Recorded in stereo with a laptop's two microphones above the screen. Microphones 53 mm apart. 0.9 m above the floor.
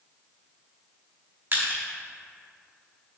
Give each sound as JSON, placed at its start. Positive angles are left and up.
{"t": 1.5, "sound": "crushing", "side_deg": -40, "distance_m": 1.1}